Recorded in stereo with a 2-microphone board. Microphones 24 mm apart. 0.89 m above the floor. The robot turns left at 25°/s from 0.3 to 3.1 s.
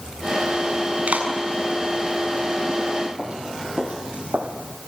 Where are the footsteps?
40° right (ahead or behind), 2 m; by 4.8 s 70° right (ahead or behind), 3.5 m.